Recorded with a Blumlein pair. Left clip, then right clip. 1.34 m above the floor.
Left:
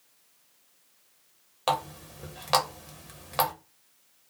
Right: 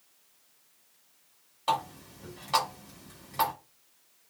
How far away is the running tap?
About 0.9 m.